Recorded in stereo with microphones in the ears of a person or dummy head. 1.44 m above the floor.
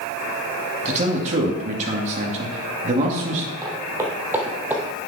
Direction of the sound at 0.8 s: 35° right (ahead or behind).